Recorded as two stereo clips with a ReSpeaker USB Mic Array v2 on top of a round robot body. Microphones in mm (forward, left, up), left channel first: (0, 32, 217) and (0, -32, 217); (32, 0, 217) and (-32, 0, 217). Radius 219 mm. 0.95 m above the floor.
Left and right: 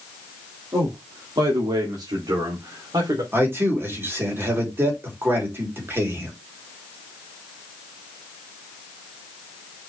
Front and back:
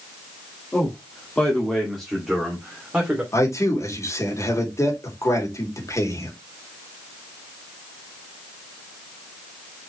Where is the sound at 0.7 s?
65° right, 2.5 m; by 3.2 s 105° right, 3 m.